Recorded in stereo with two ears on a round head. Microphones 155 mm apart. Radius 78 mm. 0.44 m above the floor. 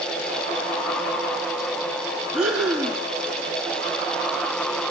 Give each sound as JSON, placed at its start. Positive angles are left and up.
{"t": 2.3, "sound": "breathing", "side_deg": -5, "distance_m": 3.0}